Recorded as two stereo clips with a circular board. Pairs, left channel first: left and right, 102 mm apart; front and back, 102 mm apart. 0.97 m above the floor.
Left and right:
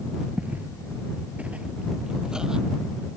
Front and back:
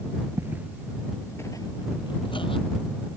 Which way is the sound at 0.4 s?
150° right.